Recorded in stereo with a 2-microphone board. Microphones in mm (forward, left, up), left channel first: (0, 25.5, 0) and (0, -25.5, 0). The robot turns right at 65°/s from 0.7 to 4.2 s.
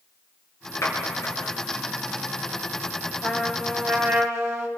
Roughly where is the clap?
Left.